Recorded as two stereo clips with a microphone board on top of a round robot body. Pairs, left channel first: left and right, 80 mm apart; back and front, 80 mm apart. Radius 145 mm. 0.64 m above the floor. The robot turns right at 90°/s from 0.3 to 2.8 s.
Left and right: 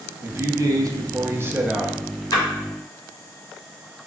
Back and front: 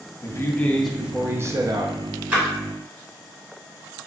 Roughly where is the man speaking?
Behind right.